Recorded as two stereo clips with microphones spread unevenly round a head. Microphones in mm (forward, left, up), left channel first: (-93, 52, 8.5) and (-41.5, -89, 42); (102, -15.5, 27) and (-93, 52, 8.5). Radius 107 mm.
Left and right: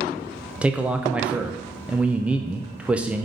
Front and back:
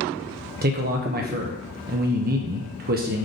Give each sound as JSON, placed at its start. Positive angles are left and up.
{"t": 0.6, "sound": "a man speaking", "azimuth_deg": -160, "distance_m": 0.6}